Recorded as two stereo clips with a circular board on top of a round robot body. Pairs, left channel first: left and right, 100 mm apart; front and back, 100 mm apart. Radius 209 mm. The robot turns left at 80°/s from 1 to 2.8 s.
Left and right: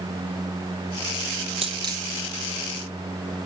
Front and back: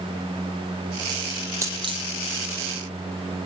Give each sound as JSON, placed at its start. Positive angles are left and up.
{"t": 1.6, "sound": "a dropped coin", "azimuth_deg": -120, "distance_m": 4.0}